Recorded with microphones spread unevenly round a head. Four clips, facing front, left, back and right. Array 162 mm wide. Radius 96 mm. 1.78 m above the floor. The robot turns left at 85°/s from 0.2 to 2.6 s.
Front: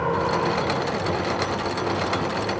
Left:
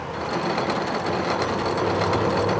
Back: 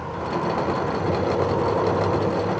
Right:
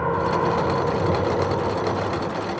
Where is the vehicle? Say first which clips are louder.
Right 5 dB, front 4 dB; 40° right; by 2.6 s 115° left.